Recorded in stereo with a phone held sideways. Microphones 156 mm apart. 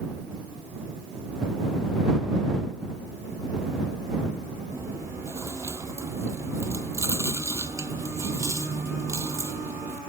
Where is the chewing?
20° right (ahead or behind).